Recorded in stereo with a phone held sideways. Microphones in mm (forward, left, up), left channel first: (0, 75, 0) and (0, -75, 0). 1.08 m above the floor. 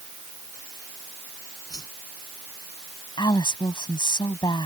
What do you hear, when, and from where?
1.7 s a whoosh: 25° left (ahead or behind)
3.2 s a woman speaking: 30° left (ahead or behind)